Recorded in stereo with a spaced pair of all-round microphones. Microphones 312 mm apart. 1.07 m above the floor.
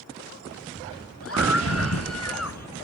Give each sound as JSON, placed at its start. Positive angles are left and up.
{"t": 1.2, "sound": "a scream", "side_deg": 45}